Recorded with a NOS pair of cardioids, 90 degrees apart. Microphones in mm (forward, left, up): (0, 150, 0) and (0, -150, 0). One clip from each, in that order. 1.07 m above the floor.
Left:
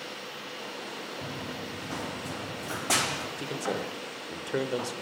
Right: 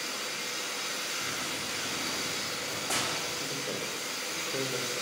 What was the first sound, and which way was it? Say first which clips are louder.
Running footsteps: right 4 dB; 70° left.